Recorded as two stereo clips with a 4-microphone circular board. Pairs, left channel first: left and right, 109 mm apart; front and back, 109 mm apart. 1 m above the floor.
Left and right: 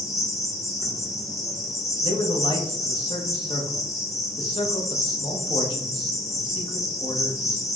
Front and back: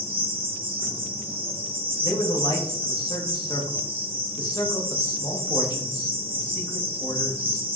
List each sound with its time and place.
0.0 s an insect: straight behind, 0.9 m
2.0 s a man speaking: 50° left, 1.0 m